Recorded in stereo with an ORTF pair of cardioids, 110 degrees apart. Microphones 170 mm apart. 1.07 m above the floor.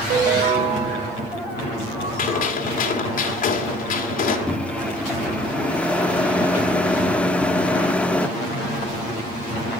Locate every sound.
0.1 s a ringtone: 70° right, 2.5 m
2.2 s a gunshot: 50° left, 2.5 m
4.5 s a microwave: 5° left, 0.8 m